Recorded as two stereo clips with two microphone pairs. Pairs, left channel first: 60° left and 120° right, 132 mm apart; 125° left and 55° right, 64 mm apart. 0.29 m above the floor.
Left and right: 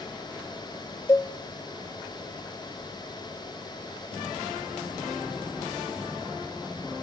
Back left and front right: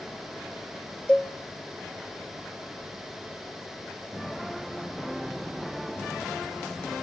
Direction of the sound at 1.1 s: 90° left.